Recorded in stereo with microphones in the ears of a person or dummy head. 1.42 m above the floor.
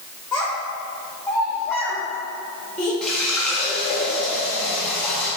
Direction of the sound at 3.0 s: 5° left (ahead or behind).